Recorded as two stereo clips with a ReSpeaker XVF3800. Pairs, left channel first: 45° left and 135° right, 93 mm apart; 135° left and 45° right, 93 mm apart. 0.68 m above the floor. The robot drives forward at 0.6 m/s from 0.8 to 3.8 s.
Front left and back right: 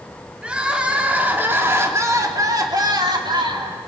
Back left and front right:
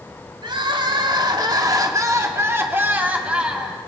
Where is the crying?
60° right, 1.9 m; by 3.8 s 125° right, 2.0 m.